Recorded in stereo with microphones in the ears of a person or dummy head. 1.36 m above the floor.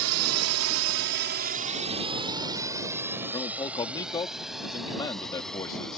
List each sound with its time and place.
0.0 s a drone: 75° right (ahead or behind); by 6.0 s 5° left (ahead or behind)
3.3 s a man speaking: 25° left (ahead or behind)